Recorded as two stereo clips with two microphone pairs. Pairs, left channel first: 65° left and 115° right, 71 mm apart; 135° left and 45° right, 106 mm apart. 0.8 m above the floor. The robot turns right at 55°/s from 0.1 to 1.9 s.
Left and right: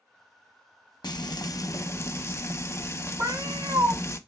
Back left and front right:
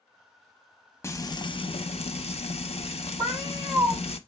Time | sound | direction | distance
1.0 | frying | 70° left | 0.6 m
3.2 | a cat meowing | 95° right | 1.7 m